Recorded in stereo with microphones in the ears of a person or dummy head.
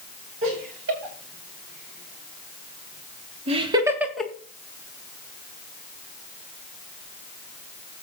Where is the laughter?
70° right (ahead or behind), 6 m; by 4.3 s 5° left (ahead or behind), 1.6 m.